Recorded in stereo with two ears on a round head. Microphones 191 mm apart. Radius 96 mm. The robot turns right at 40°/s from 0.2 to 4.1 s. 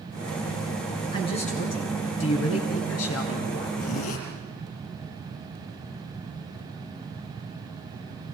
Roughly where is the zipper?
Left.